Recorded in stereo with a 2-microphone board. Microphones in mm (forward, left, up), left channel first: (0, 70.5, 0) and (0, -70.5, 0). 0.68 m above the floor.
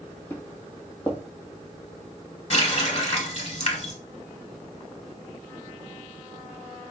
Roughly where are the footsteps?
Centre.